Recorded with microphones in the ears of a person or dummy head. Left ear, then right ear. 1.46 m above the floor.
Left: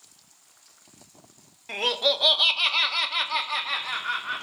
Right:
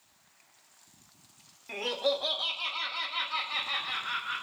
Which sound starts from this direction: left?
Laughter, at 1.7 s.